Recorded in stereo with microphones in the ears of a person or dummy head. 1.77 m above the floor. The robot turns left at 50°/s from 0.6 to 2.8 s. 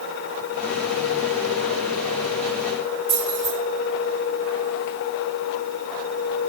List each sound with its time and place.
3.1 s keys jangling: 5° right (ahead or behind), 1.6 m